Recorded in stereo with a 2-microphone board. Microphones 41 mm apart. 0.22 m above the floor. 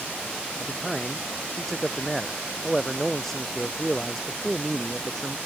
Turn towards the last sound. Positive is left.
turn(degrees=5)  # may be behind; listen again after turning